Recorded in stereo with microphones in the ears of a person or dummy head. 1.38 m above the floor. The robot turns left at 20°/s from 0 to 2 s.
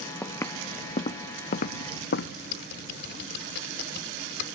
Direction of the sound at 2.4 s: 65° left (ahead or behind).